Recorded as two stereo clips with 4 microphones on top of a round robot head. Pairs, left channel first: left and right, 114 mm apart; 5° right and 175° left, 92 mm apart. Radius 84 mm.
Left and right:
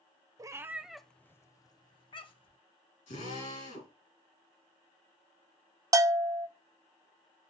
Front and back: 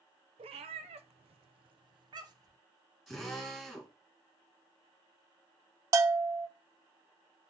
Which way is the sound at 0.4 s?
150° right.